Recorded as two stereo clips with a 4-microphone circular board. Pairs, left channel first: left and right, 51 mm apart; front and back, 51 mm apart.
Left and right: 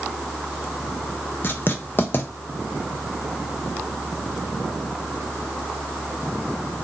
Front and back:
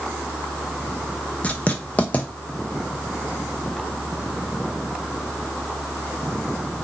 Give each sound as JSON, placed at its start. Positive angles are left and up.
{"t": 1.4, "sound": "writing", "azimuth_deg": 55, "distance_m": 0.5}